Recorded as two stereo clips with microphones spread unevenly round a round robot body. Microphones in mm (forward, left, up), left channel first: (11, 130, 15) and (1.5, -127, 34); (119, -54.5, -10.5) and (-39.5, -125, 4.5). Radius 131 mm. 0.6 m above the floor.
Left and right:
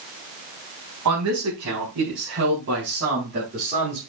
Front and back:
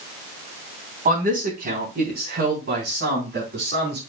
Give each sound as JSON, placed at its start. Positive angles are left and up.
{"t": 1.1, "sound": "a man speaking", "azimuth_deg": -120, "distance_m": 4.5}